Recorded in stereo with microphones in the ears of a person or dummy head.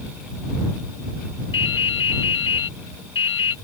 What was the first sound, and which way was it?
Dripping, 30° left (ahead or behind).